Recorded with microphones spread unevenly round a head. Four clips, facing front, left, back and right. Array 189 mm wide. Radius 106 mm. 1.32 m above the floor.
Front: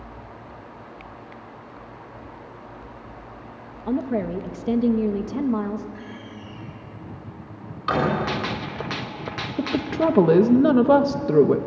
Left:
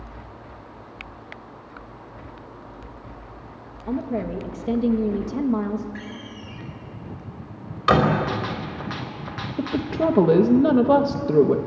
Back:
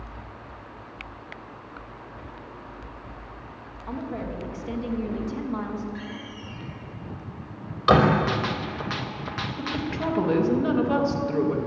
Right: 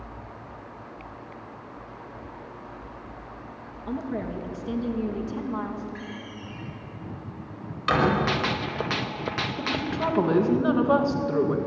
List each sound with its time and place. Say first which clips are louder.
3.9 s a woman speaking: left 4 dB, front 8 dB; 15° left, 1.9 m; by 5.8 s 50° left, 2 m
6.0 s a door slam: left 1 dB, back 1 dB; 150° left, 5 m
8.3 s a gunshot: right 1 dB, even; 65° right, 1.0 m
9.6 s a woman speaking: left 7 dB, front 8 dB; 35° left, 1.9 m